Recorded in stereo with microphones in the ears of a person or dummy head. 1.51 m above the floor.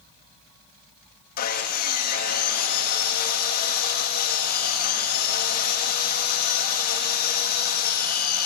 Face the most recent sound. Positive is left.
turn(degrees=45)  # may be behind; listen again after turning